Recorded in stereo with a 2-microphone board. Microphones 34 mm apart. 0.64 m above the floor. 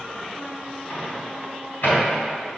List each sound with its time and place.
0.9 s a microwave: 60° left (ahead or behind), 3.5 m